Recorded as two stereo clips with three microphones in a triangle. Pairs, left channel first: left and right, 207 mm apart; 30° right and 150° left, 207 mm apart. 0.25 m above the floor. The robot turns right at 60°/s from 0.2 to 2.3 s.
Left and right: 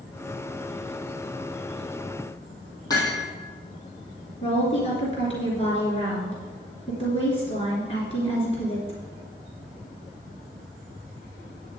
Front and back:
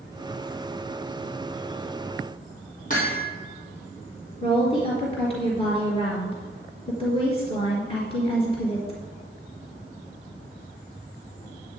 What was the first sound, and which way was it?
Hammering, 15° left.